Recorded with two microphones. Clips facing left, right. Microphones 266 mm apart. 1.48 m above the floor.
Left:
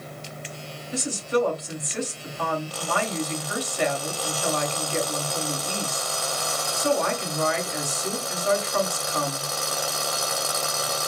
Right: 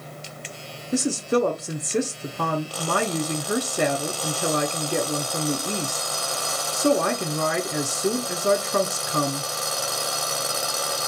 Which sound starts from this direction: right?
A woman speaking, at 0.9 s.